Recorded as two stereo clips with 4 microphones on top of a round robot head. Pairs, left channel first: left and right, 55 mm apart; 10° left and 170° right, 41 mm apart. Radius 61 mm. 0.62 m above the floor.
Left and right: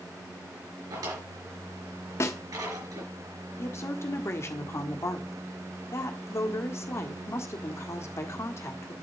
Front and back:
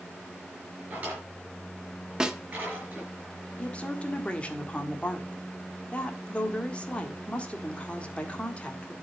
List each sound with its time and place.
0.9 s a drawer: 110° right, 5.5 m
2.2 s a snare drum: 115° left, 1.3 m
3.6 s a woman speaking: 65° left, 1.7 m